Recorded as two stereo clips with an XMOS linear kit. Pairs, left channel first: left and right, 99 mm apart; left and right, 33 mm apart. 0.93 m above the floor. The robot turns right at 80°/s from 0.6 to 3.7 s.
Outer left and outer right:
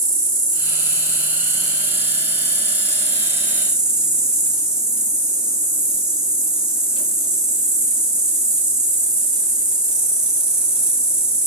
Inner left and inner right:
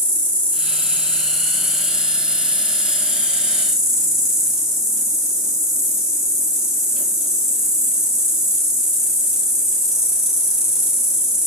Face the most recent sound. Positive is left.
turn(degrees=-10)